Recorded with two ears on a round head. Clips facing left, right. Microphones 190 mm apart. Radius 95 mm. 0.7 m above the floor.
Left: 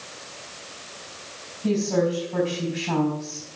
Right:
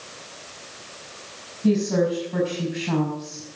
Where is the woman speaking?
10° right (ahead or behind), 5.5 m.